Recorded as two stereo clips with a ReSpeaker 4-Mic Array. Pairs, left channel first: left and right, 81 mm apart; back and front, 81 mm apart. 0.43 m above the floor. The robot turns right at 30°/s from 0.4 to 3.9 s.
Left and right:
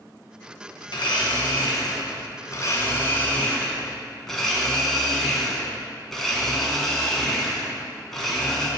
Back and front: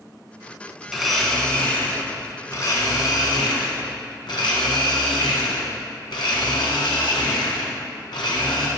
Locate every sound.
0.9 s a blender: 85° left, 1.6 m; by 8.7 s 175° left, 1.6 m